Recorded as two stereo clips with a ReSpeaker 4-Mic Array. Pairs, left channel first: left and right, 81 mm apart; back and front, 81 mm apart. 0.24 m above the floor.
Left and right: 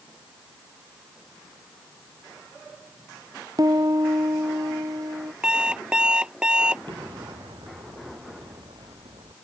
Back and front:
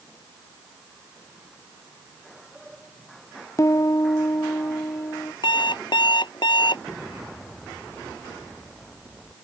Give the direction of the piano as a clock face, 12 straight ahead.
4 o'clock.